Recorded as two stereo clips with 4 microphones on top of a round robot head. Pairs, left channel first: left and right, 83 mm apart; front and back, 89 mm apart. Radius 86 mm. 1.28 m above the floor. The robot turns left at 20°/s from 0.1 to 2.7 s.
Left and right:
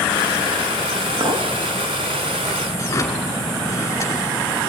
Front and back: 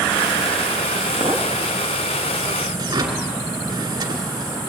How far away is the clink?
About 1.2 m.